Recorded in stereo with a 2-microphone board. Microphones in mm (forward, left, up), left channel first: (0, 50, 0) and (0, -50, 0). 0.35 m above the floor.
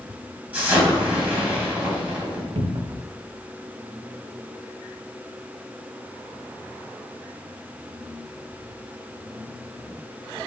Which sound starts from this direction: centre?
An explosion, at 0.5 s.